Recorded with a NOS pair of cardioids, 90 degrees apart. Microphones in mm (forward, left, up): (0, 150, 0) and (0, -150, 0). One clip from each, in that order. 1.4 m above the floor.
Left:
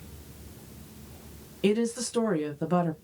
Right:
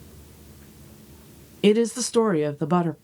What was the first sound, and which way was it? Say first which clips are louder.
A woman speaking: right 7 dB; 40° right.